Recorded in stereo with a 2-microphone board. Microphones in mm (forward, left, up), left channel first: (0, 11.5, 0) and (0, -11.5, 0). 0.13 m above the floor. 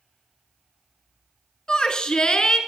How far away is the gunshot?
No gunshot in this recording.